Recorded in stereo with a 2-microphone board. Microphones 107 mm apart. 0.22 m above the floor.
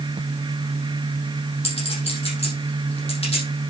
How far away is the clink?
About 5.5 m.